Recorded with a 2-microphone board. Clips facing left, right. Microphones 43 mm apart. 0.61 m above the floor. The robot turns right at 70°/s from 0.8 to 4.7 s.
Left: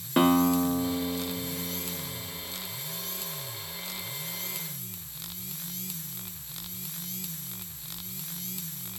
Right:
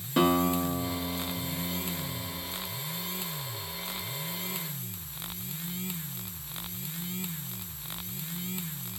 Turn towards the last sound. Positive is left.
turn(degrees=40)